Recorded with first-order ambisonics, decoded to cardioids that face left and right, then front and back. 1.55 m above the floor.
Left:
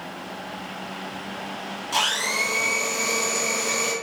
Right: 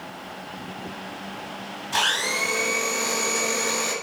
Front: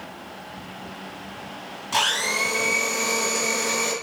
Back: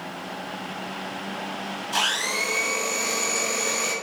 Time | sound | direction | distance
1.9 | a blender | 30° left | 2.0 m